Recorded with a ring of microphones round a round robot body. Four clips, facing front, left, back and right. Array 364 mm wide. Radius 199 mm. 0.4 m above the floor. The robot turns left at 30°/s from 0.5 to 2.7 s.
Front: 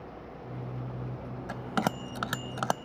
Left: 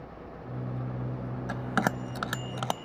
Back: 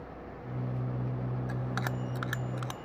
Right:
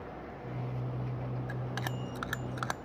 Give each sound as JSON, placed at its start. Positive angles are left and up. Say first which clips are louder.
{"t": 1.5, "sound": "a bell", "louder": "left 9 dB, front 9 dB", "azimuth_deg": 55}